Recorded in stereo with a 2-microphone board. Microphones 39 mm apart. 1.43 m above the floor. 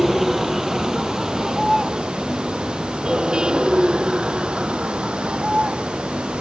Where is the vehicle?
5° right (ahead or behind); by 6.4 s 30° right (ahead or behind).